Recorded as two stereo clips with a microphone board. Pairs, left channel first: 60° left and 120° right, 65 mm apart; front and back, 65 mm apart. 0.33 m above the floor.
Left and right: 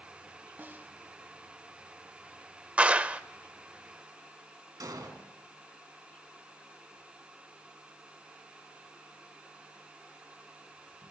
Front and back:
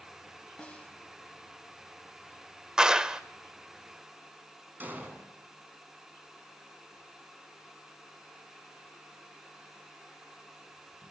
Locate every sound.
0.6 s a snare drum: 65° right, 2 m
2.8 s a clap: 125° right, 0.6 m
4.8 s an explosion: 120° right, 4 m